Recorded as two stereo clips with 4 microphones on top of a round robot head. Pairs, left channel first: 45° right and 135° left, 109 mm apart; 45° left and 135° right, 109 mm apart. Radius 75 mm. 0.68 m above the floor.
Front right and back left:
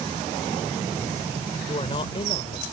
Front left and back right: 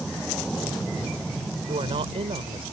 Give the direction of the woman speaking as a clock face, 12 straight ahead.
3 o'clock.